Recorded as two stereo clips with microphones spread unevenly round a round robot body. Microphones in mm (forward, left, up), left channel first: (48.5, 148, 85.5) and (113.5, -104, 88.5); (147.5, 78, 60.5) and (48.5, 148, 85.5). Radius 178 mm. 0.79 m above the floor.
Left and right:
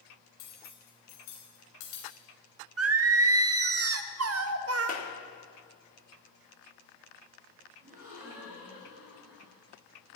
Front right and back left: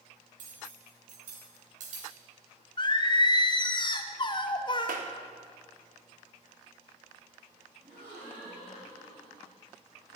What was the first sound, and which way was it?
Cutlery clinking, 150° left.